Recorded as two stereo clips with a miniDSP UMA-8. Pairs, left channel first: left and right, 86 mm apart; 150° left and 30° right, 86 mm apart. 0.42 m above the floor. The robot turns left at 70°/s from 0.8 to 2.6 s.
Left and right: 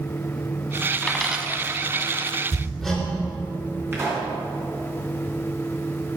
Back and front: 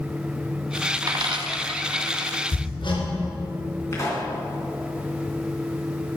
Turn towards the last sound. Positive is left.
turn(degrees=-155)